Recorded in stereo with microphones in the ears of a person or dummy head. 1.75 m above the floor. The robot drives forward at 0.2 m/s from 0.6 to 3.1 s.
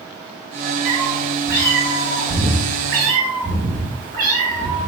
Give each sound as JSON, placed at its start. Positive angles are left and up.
{"t": 0.8, "sound": "a cat meowing", "side_deg": -15, "distance_m": 0.9}